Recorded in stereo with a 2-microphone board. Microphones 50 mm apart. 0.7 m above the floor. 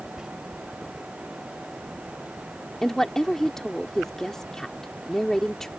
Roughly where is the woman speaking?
Centre.